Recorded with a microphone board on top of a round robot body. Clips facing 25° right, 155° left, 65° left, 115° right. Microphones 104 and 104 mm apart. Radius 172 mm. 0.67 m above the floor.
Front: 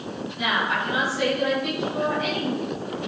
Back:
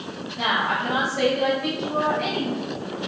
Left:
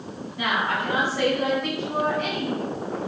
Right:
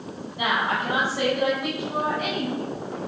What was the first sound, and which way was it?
A woman speaking, straight behind.